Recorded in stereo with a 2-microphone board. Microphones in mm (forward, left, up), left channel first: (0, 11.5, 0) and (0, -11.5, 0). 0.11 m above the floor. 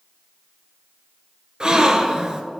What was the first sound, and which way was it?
A gasp, 35° right (ahead or behind).